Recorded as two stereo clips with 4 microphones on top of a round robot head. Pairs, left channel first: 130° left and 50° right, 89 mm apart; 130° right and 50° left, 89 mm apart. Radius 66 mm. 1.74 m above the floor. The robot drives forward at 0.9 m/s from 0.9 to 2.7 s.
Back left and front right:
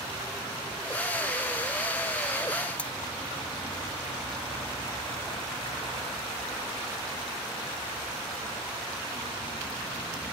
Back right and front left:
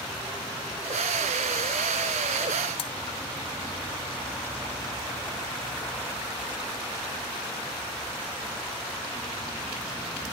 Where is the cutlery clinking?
155° right.